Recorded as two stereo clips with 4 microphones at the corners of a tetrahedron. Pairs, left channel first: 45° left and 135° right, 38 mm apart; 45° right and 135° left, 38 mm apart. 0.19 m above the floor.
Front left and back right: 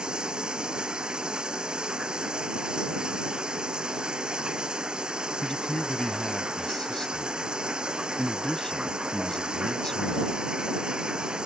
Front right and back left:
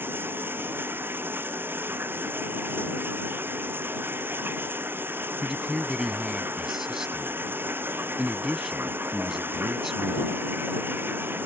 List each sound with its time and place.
0.0 s running water: 160° left
5.4 s a man speaking: 85° left